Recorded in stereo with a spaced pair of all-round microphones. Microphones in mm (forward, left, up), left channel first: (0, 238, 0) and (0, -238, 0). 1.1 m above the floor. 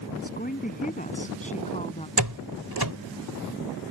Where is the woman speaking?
20° left (ahead or behind); by 2.1 s 15° left (ahead or behind).